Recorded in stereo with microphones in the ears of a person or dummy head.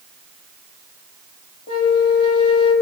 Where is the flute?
30° left (ahead or behind), 5.5 m.